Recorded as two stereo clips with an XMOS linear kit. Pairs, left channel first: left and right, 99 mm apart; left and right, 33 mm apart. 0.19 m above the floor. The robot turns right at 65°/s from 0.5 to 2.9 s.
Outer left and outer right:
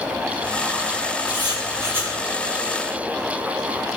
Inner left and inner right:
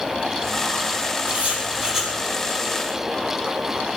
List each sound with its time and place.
1.3 s writing: 70° right, 5 m; by 2.1 s 10° right, 5 m